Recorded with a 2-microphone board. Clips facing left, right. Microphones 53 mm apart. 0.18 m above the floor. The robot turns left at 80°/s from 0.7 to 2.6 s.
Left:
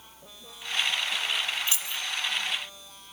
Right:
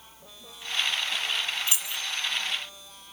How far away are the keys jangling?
About 1.1 m.